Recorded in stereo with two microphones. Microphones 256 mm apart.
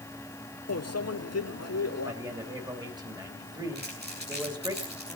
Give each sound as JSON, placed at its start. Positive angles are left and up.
{"t": 0.7, "sound": "a microwave", "side_deg": 75, "distance_m": 0.7}
{"t": 2.0, "sound": "a man speaking", "side_deg": -15, "distance_m": 3.0}
{"t": 3.8, "sound": "crumpling", "side_deg": -40, "distance_m": 6.5}